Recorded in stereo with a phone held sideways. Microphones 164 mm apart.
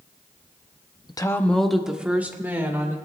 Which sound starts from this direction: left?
A woman speaking, at 1.1 s.